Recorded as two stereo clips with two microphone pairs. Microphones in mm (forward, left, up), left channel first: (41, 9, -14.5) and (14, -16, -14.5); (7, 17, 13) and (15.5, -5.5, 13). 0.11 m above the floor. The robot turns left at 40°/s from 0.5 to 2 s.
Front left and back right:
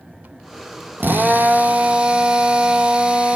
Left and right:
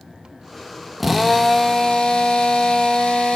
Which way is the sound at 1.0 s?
155° right.